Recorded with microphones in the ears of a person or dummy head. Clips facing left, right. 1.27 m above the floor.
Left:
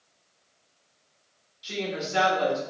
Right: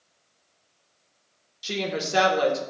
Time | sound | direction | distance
1.6 | a woman speaking | 60° right (ahead or behind) | 0.9 m